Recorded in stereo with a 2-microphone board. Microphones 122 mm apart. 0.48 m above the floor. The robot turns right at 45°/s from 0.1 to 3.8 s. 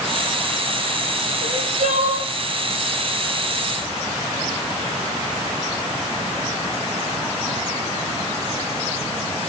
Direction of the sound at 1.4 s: 120° right.